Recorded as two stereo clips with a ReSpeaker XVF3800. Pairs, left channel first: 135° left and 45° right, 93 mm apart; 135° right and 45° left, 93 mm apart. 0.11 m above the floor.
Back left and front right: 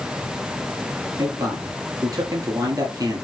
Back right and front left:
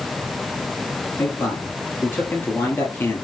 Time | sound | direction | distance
1.2 | a man speaking | 75° right | 1.8 m